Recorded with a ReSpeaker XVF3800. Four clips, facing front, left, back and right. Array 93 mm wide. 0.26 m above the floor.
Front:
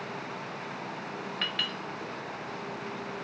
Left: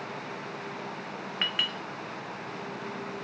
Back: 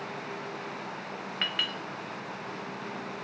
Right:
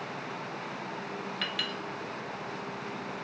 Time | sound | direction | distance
1.4 | a clink | 115° left | 0.7 m